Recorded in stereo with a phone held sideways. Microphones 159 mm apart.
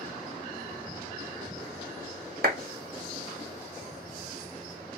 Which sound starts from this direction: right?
A clap, at 2.4 s.